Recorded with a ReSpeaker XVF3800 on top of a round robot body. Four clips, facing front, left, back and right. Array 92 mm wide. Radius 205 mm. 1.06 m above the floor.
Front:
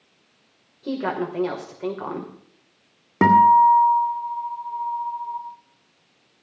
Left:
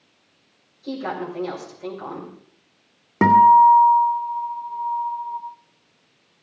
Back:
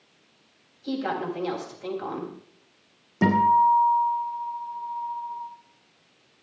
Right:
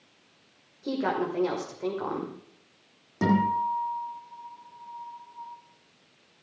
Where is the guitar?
40° left, 2 m.